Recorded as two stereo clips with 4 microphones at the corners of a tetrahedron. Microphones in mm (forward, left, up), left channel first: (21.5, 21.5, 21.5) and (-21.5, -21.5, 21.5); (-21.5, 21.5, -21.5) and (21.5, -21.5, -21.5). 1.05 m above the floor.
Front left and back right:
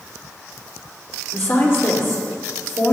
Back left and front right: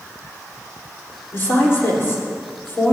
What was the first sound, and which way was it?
A woman speaking, 90° left.